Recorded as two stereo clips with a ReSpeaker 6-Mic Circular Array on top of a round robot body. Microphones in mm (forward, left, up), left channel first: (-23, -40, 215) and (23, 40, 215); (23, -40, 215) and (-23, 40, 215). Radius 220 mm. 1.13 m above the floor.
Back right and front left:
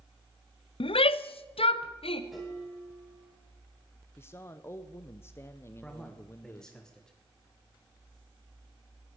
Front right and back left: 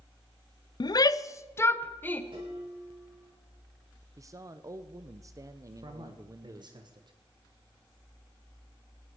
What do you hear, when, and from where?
0.8 s a shout: 100° right, 0.6 m; by 2.2 s 130° right, 1.2 m
2.3 s dishes clattering: 150° left, 7.5 m
4.2 s a man speaking: 175° left, 0.7 m
5.8 s a man speaking: 155° left, 1.7 m